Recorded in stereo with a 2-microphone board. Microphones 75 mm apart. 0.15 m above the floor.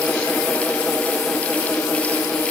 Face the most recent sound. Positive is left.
No sound to turn to.